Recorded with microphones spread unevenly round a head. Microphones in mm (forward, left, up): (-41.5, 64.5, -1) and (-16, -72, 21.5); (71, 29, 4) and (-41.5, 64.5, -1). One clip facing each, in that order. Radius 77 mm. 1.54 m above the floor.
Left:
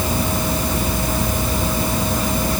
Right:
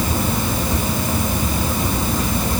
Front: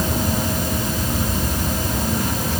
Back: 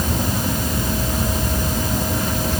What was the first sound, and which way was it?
Only background noise.